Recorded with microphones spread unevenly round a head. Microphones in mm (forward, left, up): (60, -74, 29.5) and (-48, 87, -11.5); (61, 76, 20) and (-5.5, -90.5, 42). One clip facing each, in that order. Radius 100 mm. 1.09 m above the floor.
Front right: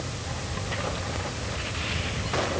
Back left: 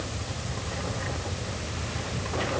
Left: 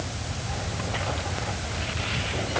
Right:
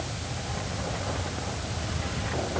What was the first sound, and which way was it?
Only background noise.